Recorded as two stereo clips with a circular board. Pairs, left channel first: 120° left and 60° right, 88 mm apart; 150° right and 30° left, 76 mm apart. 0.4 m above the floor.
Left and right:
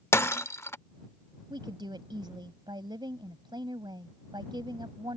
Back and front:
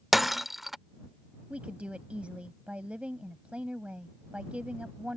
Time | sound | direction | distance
0.1 | breaking glass | 120° left | ?
1.5 | a woman speaking | 40° right | ?